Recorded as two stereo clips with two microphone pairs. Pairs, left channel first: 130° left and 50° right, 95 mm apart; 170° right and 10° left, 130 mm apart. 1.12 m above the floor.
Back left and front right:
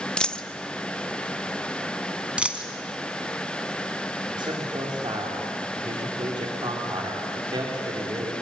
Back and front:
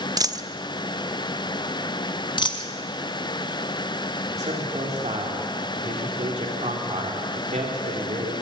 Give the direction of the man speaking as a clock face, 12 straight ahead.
1 o'clock.